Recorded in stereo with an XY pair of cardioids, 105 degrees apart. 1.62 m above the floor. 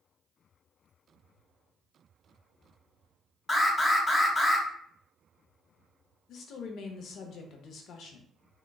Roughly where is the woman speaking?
Left.